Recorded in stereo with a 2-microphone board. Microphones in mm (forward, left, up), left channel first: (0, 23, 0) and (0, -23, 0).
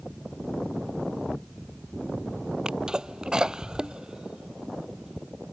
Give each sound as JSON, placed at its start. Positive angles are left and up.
{"t": 2.6, "sound": "a sneeze", "side_deg": -15}